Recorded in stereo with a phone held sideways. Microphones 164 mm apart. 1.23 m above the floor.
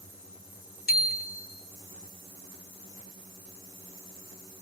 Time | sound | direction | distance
0.9 | a bicycle bell | 70° left (ahead or behind) | 2.5 m